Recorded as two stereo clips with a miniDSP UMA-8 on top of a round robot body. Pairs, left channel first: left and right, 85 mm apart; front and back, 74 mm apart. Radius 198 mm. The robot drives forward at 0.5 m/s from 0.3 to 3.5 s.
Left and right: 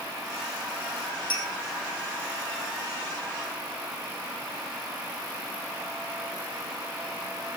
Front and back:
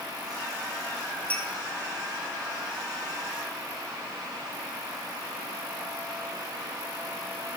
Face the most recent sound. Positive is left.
turn(degrees=110)